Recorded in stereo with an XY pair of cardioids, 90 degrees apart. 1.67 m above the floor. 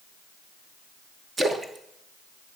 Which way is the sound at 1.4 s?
35° right.